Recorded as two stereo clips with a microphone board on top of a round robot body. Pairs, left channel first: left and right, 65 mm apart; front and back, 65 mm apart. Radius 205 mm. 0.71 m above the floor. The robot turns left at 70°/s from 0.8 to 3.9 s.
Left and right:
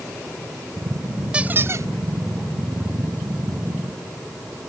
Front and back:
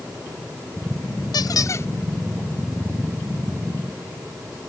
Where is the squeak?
15° right; by 1.9 s 50° right.